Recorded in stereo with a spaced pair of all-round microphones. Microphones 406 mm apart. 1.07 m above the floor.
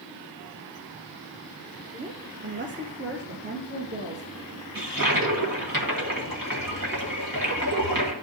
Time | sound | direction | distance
1.9 | a woman speaking | 20° right (ahead or behind) | 0.9 m
4.8 | a toilet flushing | 50° right (ahead or behind) | 1.6 m